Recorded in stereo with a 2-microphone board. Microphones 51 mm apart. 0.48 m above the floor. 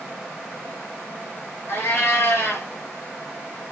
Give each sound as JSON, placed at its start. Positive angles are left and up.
{"t": 1.7, "sound": "a cat meowing", "side_deg": 55, "distance_m": 4.0}